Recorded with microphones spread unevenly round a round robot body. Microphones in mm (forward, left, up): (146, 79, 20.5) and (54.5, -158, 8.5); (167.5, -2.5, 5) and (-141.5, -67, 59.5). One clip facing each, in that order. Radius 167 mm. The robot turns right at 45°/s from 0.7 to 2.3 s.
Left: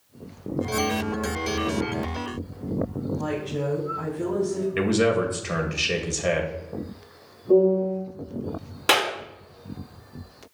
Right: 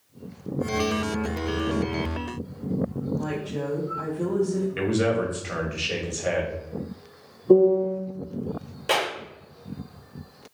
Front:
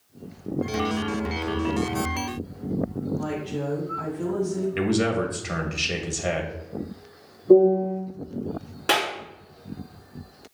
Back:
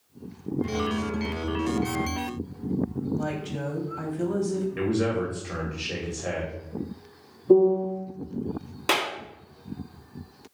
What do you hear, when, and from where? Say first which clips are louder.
3.2 s a woman speaking: left 1 dB, front 2 dB; 165° left, 2.5 m
4.8 s a man speaking: left 4 dB, front 3 dB; 35° left, 1.9 m
7.5 s a piano: right 2 dB, front 3 dB; 100° right, 3 m
8.9 s a clap: left 2 dB, front 2 dB; 110° left, 3.5 m